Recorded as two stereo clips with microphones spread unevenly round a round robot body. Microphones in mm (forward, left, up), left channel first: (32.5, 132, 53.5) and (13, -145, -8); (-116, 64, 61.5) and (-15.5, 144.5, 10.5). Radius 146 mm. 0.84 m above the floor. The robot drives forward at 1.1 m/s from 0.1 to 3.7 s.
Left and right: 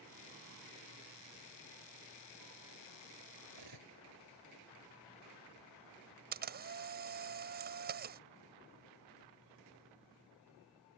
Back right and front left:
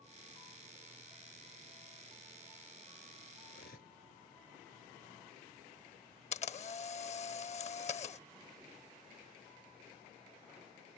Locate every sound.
3.5 s cutlery clinking: 105° right
6.3 s a camera shutter: 155° right